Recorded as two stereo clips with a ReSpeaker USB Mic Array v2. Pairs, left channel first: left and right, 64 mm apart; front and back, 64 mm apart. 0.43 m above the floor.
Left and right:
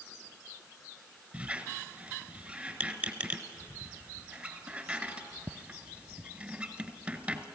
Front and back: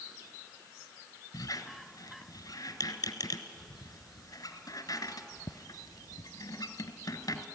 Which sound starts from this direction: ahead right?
A squeak, at 1.3 s.